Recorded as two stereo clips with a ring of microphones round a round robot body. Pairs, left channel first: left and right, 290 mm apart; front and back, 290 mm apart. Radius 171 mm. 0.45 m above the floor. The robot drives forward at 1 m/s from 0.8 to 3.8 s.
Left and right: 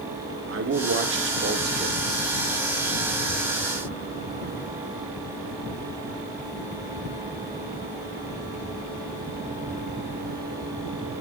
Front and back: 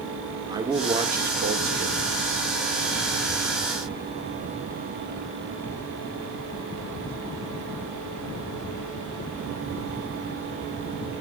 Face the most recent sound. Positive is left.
turn(degrees=-165)